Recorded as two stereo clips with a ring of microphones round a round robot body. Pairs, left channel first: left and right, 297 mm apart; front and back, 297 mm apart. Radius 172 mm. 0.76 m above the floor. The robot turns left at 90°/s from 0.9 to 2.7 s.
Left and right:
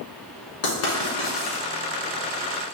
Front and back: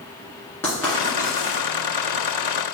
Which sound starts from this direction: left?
Writing, at 0.6 s.